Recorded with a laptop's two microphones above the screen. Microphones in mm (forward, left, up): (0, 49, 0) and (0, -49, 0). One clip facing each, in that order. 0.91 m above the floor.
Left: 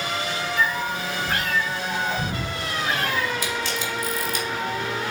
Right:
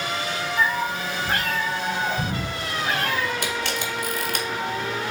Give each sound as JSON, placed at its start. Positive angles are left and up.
{"t": 0.6, "sound": "a cat meowing", "side_deg": -30, "distance_m": 2.0}
{"t": 3.4, "sound": "a camera shutter", "side_deg": -60, "distance_m": 1.3}